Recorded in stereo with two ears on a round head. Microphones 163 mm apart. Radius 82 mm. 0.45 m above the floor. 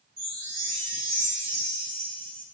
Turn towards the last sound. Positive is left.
turn(degrees=-15)  # may be behind; listen again after turning